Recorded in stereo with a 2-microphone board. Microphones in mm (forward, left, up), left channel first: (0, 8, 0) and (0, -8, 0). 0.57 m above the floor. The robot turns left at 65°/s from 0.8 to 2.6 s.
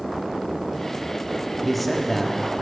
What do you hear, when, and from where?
1.6 s a man speaking: 5° left (ahead or behind), 1.3 m; by 2.4 s 20° left (ahead or behind), 1.3 m